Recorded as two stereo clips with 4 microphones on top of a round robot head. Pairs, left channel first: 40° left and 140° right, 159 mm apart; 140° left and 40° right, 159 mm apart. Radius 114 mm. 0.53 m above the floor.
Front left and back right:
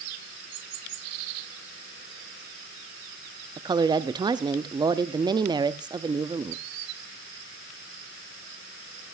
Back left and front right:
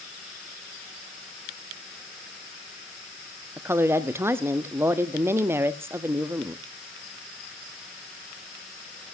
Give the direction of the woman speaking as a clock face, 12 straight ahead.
3 o'clock.